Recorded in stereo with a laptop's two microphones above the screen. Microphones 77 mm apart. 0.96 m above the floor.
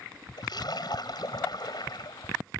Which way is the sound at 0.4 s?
65° left (ahead or behind).